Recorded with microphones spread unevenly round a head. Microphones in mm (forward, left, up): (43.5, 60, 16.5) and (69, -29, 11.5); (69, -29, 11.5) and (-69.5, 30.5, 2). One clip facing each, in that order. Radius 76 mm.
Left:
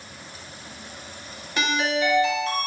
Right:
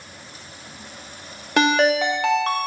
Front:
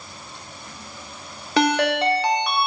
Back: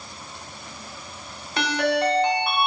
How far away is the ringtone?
About 1.2 m.